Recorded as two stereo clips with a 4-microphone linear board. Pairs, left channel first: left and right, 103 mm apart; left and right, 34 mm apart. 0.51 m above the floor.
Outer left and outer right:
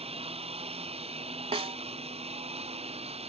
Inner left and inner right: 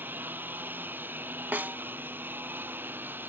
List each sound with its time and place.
0.0 s a lawn mower: 75° right (ahead or behind); by 3.3 s 85° right
1.5 s a snare drum: 80° right